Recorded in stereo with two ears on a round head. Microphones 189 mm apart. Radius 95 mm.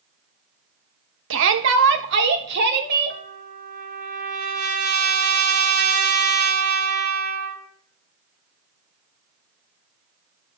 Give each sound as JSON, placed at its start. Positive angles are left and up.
{"t": 1.3, "sound": "a shout", "side_deg": -65, "distance_m": 1.2}
{"t": 3.1, "sound": "a trumpet", "side_deg": -50, "distance_m": 1.6}